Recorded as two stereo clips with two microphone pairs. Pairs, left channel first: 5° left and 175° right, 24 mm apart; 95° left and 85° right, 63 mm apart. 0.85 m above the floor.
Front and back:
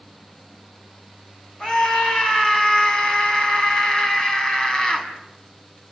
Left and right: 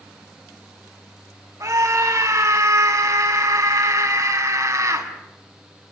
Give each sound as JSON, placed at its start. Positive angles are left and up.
{"t": 1.6, "sound": "a scream", "azimuth_deg": -50, "distance_m": 6.0}